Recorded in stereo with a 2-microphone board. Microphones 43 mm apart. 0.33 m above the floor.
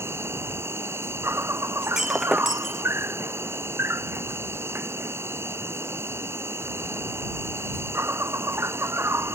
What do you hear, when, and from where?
0.0 s an insect: 85° right
1.8 s breaking glass: 15° right (ahead or behind)